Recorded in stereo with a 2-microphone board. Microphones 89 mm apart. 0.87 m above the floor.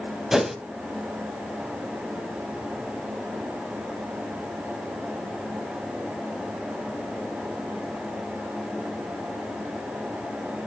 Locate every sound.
0.3 s a whoosh: 5° right (ahead or behind), 0.8 m